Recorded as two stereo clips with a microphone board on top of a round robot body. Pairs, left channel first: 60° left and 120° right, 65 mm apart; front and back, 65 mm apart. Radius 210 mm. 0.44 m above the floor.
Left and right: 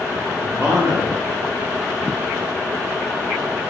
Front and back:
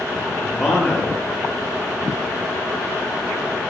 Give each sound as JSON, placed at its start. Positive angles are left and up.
{"t": 0.5, "sound": "a man speaking", "azimuth_deg": -65, "distance_m": 1.1}